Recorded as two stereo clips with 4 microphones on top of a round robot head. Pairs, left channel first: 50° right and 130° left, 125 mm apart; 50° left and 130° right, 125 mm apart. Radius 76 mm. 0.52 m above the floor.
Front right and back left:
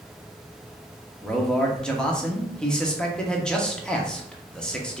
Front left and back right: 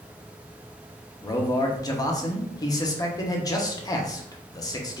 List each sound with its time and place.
1.2 s a man speaking: 25° left, 0.9 m